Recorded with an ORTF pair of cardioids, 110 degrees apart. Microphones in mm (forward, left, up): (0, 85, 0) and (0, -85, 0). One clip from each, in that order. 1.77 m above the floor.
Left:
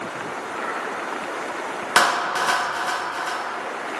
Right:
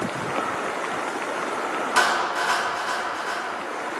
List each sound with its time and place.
2.0 s a clap: 50° left, 1.7 m